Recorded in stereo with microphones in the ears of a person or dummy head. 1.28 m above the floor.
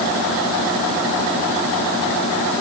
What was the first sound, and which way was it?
Only background noise.